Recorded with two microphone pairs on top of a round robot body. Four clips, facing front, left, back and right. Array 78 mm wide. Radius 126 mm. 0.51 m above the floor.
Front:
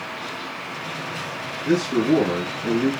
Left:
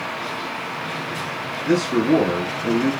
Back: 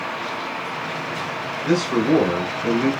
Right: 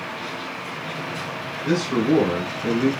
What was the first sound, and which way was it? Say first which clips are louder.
A man speaking: left 2 dB, even; 165° right.